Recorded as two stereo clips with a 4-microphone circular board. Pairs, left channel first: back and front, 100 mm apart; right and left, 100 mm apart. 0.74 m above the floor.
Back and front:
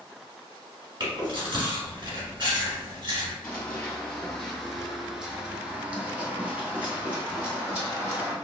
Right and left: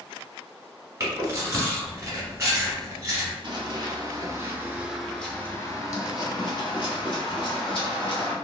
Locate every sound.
1.0 s chewing: 30° left, 1.7 m
3.4 s running footsteps: 105° left, 1.1 m; by 8.3 s 75° right, 2 m